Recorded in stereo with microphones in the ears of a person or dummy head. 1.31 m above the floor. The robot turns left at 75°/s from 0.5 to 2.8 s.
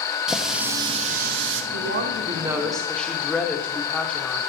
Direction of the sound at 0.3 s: 5° right.